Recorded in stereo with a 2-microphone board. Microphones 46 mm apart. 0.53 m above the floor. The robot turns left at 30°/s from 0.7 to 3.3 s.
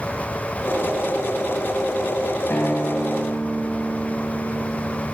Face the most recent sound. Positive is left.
turn(degrees=75)  # may be behind; listen again after turning